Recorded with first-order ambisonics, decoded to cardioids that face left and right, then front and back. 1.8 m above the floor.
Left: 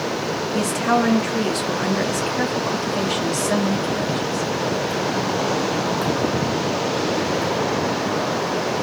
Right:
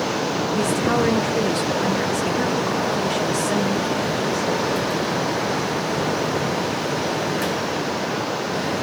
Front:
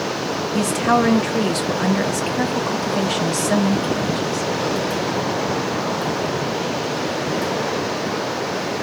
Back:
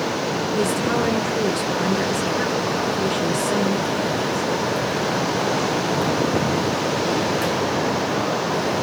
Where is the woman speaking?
25° left, 2 m.